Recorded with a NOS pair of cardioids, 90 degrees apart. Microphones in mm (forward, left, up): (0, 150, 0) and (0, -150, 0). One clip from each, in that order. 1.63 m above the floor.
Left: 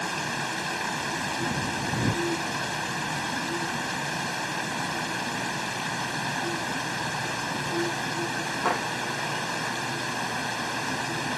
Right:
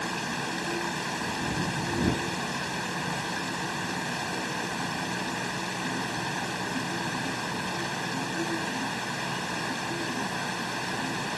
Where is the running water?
15° left.